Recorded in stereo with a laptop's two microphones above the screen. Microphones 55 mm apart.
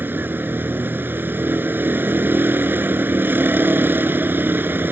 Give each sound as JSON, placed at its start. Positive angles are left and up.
{"t": 0.0, "sound": "a vehicle", "side_deg": -35}